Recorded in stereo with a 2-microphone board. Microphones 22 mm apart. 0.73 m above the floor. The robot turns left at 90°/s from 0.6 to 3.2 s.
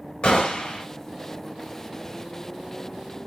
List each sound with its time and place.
0.2 s a gunshot: 50° left (ahead or behind), 1.0 m; by 0.8 s 30° left (ahead or behind), 1.0 m